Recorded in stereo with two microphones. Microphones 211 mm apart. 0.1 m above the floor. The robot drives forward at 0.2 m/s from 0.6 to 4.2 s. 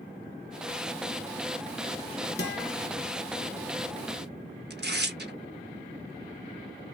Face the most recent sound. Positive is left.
turn(degrees=-50)  # may be behind; listen again after turning